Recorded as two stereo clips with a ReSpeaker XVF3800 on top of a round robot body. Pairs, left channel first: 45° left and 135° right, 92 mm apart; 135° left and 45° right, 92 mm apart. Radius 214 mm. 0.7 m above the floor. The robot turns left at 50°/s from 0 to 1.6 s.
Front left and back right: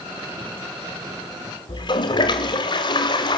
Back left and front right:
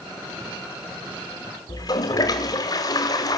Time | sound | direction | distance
1.7 | a toilet flushing | 85° left | 0.7 m